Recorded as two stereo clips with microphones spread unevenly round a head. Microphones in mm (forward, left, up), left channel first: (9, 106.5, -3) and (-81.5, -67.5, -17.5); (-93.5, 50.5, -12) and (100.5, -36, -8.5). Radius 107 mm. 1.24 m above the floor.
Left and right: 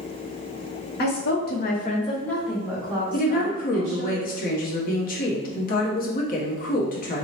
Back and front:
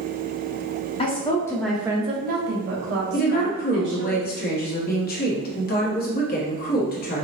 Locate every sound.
1.0 s a woman speaking: 95° left, 1.0 m; by 4.1 s 60° right, 1.8 m
3.1 s a woman speaking: 110° left, 0.8 m